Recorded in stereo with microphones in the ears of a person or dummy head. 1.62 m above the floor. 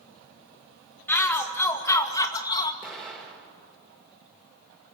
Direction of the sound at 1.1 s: 15° left (ahead or behind).